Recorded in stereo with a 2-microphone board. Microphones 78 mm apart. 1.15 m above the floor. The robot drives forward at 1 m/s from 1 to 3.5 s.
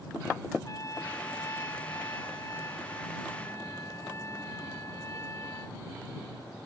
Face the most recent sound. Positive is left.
turn(degrees=35)  # may be behind; listen again after turning